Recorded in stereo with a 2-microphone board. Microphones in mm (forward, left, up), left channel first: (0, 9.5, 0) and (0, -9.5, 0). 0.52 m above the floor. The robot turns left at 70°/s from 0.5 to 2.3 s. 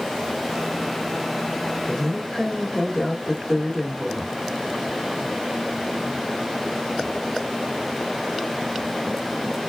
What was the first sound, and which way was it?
A woman speaking, 20° left (ahead or behind).